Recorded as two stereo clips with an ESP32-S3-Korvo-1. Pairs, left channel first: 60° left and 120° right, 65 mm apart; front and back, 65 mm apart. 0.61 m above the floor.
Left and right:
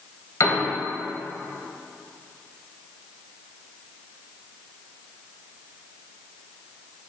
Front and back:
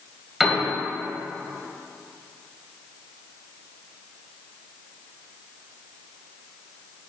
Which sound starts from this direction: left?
A piano, at 0.4 s.